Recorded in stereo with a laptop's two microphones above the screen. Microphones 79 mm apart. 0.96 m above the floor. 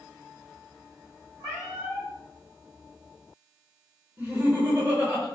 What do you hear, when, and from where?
1.4 s a cat meowing: 65° right (ahead or behind), 1.9 m
4.2 s laughter: 25° right (ahead or behind), 1.1 m